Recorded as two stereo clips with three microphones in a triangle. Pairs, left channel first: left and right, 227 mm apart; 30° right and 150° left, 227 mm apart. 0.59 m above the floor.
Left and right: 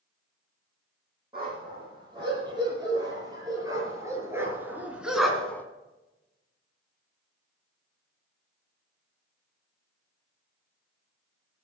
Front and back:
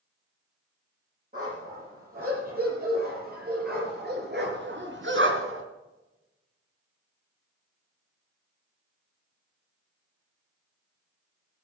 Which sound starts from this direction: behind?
A dog barking, at 1.3 s.